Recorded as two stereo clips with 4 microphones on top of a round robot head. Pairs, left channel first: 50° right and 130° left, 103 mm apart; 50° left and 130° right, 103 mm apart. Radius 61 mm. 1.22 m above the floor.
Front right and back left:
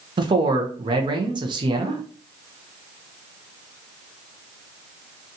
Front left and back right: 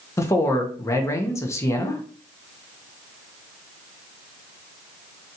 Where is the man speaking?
105° left, 0.7 m.